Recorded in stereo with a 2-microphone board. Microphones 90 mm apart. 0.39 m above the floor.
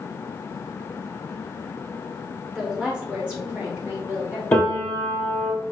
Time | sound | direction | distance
2.5 | a woman speaking | 5° right (ahead or behind) | 1.0 m
4.5 | a piano | 20° left (ahead or behind) | 2 m